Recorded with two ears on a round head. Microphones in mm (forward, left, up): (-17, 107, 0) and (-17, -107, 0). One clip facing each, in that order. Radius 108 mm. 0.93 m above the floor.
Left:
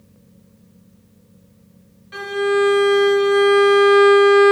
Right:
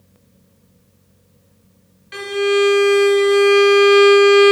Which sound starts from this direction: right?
A violin, at 2.1 s.